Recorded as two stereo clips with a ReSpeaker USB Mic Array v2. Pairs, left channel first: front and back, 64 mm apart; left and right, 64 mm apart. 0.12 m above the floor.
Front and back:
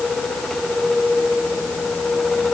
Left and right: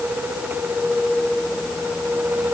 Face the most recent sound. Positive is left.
No sound to turn to.